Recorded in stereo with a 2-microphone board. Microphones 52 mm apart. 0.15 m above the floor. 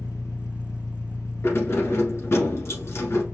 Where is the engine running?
70° left (ahead or behind), 0.8 m.